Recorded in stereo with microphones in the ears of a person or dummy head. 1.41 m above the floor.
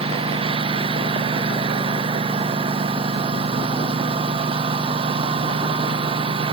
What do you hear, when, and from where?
0.0 s a lawn mower: 30° right (ahead or behind)